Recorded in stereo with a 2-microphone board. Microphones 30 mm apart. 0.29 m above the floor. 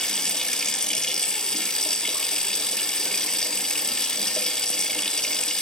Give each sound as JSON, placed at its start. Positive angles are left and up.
{"t": 0.0, "sound": "running water", "side_deg": 25, "distance_m": 0.8}